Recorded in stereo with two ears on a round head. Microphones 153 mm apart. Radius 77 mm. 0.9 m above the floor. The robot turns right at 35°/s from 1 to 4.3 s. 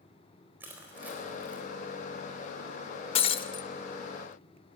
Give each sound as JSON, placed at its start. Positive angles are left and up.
{"t": 0.6, "sound": "crushing", "side_deg": -10, "distance_m": 4.0}
{"t": 3.1, "sound": "breaking glass", "side_deg": 35, "distance_m": 0.7}